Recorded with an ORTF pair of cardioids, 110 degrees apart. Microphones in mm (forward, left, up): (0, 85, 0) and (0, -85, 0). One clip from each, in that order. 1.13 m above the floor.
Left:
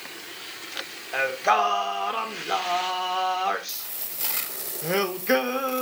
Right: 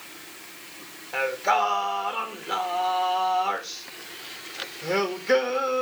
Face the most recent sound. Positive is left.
turn(degrees=10)